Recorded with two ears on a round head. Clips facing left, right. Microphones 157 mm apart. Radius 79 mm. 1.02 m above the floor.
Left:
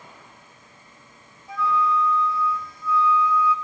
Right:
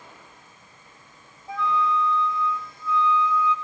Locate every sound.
1.5 s a flute: 25° right (ahead or behind), 0.8 m